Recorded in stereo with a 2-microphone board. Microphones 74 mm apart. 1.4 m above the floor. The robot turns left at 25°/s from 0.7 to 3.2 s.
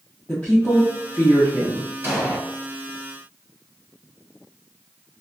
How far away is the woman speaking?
About 0.5 m.